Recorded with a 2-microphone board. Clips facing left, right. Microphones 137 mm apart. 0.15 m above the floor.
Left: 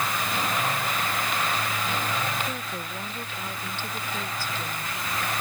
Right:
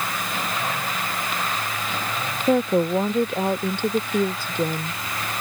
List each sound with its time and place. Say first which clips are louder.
2.5 s a woman speaking: right 16 dB; 60° right (ahead or behind)